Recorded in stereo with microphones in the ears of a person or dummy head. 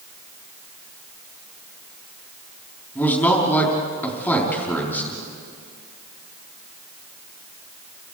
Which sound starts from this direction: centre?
A man speaking, at 3.0 s.